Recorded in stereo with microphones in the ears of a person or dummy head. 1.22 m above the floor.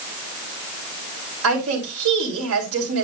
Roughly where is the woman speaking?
Right.